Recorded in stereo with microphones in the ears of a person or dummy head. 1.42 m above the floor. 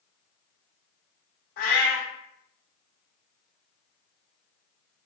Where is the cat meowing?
55° left (ahead or behind), 1.3 m.